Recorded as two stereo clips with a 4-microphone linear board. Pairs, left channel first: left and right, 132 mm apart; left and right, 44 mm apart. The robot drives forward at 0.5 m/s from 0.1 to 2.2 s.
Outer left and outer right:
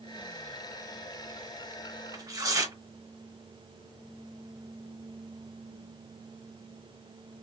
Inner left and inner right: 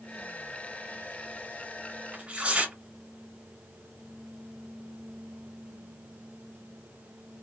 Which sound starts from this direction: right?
Tearing paper, at 2.1 s.